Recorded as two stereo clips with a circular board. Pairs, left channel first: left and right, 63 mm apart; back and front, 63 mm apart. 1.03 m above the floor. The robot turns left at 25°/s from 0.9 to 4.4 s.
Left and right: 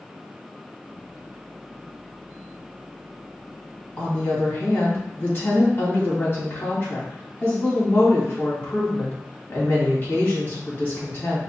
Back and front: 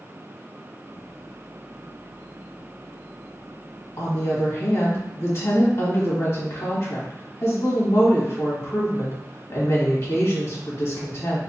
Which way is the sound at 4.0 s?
155° left.